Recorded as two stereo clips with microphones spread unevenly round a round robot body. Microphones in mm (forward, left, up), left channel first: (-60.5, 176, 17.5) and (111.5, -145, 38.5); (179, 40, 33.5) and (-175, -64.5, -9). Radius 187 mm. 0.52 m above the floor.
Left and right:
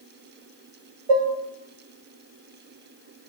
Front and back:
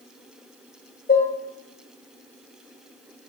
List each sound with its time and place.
1.1 s dishes clattering: 55° right, 0.8 m